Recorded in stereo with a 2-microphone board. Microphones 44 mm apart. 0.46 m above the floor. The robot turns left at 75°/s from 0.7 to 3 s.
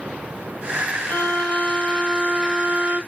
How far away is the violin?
About 1.5 m.